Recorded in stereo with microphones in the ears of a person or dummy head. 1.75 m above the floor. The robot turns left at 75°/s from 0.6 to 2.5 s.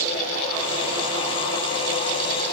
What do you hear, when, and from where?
Only background noise.